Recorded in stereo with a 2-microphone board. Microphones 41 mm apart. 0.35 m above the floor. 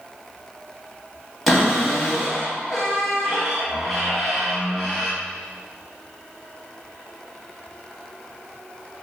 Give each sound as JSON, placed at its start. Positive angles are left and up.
{"t": 1.5, "sound": "a cupboard door", "side_deg": 5, "distance_m": 0.9}